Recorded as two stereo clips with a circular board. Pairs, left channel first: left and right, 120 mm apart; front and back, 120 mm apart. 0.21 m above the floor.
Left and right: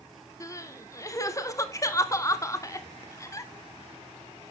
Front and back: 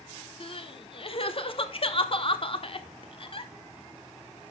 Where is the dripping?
No dripping in this recording.